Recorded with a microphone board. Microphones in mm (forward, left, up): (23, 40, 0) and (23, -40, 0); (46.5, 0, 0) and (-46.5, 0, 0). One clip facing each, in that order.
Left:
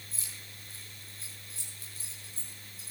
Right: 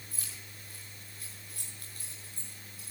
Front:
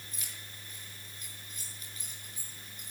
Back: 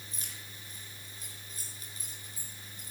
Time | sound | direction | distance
0.1 | keys jangling | 125° right | 7 m